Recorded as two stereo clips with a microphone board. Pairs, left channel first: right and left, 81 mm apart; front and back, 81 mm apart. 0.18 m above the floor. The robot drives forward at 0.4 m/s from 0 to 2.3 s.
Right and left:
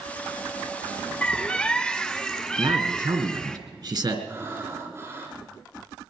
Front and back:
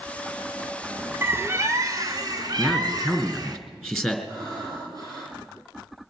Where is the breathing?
145° left, 6 m.